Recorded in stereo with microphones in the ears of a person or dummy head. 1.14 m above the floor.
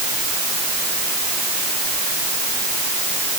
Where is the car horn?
No car horn in this recording.